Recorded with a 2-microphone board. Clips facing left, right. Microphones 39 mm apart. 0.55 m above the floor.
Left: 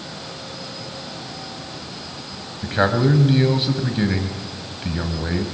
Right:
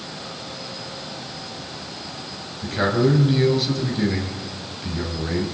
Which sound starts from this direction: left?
A man speaking, at 2.6 s.